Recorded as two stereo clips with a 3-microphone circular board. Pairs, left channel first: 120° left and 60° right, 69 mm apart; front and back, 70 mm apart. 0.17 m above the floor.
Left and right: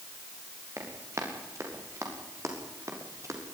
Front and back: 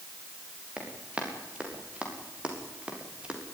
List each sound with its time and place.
0.8 s running footsteps: 105° right, 7 m